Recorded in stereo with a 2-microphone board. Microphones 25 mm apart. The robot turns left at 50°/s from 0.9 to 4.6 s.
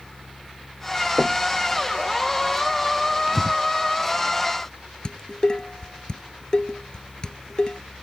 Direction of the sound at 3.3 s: 30° right (ahead or behind).